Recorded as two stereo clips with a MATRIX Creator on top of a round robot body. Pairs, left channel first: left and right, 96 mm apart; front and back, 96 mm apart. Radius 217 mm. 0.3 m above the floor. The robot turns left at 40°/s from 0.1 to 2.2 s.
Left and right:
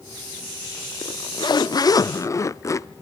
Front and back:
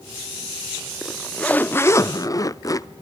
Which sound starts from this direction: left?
A zipper, at 1.0 s.